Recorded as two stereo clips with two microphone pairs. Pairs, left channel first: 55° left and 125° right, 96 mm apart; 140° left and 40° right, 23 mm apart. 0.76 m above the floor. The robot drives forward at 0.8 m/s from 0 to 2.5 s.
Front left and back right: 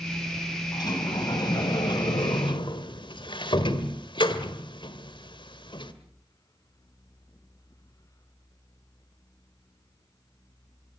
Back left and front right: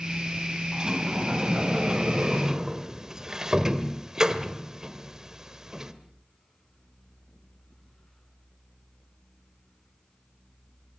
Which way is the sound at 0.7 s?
10° left.